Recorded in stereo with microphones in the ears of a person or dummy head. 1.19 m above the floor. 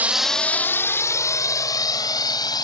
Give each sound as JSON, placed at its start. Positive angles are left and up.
{"t": 0.0, "sound": "a drone", "side_deg": -10}